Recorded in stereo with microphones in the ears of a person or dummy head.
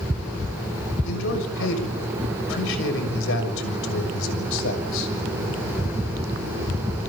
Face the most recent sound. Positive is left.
turn(degrees=75)  # may be behind; listen again after turning